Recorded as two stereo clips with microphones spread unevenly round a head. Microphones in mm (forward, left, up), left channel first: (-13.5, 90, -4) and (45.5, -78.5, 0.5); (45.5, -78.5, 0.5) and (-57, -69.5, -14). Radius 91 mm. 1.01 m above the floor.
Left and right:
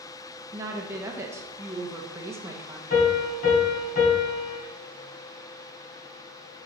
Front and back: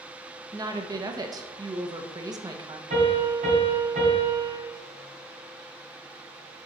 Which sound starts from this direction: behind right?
A woman speaking, at 0.5 s.